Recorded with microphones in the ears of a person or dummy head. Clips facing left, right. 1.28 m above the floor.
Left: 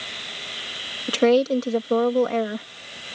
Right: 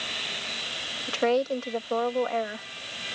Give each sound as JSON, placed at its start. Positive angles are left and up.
{"t": 1.1, "sound": "a woman speaking", "side_deg": 45}